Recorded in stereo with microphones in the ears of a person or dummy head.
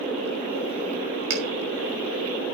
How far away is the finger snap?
About 4.5 m.